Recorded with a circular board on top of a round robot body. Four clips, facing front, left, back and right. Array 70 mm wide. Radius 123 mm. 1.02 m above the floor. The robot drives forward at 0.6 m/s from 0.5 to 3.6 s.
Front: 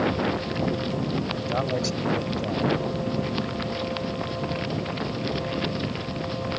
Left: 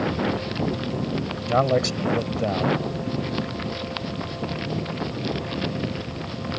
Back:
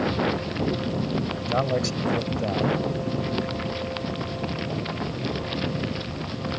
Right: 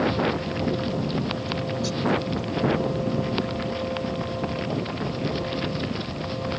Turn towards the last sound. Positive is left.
turn(degrees=115)